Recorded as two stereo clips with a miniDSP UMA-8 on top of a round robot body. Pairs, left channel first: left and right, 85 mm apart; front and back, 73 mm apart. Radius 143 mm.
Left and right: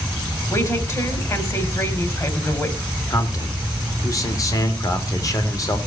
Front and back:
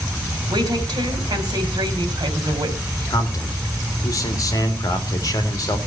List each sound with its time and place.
0.5 s a woman speaking: 150° left, 3.5 m
3.1 s a man speaking: 40° left, 2.5 m